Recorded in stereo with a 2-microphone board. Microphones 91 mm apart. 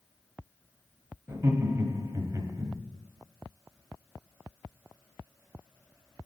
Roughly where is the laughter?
Right.